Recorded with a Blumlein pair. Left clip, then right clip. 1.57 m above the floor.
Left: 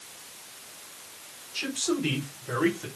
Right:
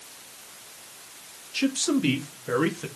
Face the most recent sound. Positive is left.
turn(degrees=-20)